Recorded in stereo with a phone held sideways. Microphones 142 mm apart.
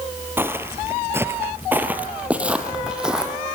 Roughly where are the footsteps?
Centre.